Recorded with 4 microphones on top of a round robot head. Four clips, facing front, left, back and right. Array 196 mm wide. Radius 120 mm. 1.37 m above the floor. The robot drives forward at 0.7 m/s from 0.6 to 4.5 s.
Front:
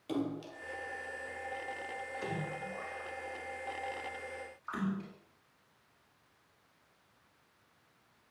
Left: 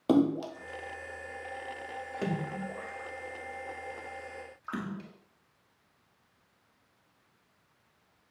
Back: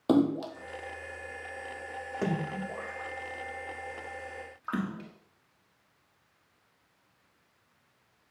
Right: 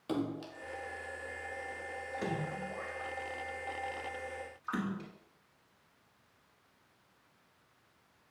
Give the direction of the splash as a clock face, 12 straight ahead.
7 o'clock.